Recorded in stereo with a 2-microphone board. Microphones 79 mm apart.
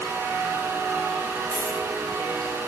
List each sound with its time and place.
1.5 s a dropped coin: 65° right (ahead or behind), 2 m